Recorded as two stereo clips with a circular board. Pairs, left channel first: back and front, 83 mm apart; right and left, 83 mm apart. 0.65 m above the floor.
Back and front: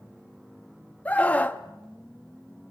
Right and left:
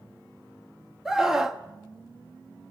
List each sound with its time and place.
1.1 s a scream: 160° left, 1.2 m